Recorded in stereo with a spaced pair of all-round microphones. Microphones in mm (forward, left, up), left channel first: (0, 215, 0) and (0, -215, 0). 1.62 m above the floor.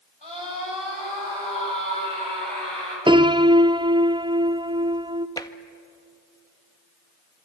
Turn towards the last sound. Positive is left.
turn(degrees=10)  # may be behind; listen again after turning